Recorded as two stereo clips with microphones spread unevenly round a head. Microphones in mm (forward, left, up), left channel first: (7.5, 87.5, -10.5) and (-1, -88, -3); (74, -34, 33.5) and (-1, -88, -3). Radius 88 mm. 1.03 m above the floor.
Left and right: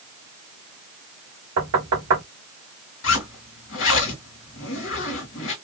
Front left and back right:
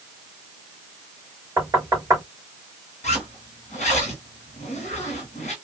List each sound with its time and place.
1.6 s knocking: 95° right, 2.5 m
3.0 s a zipper: 80° left, 1.9 m